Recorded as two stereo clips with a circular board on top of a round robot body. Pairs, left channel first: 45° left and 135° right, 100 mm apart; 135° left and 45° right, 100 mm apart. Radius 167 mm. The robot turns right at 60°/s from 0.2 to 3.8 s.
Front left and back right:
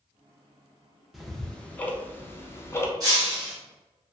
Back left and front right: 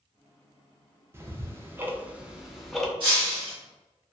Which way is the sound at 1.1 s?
50° right.